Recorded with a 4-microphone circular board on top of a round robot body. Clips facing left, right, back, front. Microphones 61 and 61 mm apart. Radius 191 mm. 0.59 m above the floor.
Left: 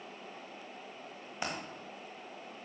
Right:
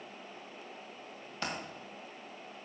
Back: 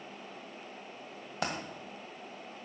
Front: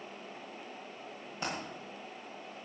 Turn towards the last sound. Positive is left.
turn(degrees=165)